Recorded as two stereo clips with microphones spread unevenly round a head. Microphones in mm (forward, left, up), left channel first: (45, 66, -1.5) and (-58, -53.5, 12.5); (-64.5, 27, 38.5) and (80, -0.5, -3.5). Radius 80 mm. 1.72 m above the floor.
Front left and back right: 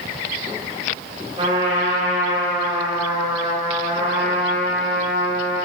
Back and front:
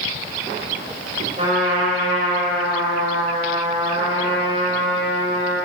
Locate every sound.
1.4 s a trumpet: 75° right, 5.5 m